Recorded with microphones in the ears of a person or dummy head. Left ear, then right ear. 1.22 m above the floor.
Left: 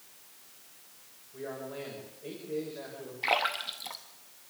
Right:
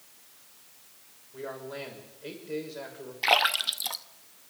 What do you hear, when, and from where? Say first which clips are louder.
1.3 s a man speaking: right 1 dB; 75° right (ahead or behind), 6 m
3.2 s a splash: right 6 dB; 25° right (ahead or behind), 0.7 m